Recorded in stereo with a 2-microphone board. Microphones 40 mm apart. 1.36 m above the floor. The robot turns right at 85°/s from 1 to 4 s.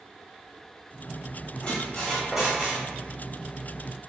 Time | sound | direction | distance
1.6 | a squeak | 130° left | 0.9 m